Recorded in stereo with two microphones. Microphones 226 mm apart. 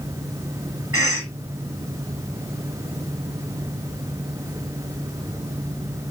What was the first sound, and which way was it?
A cough, 70° right (ahead or behind).